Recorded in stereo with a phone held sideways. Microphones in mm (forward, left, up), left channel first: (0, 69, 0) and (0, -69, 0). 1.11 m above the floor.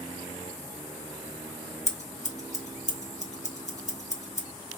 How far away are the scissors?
About 0.8 m.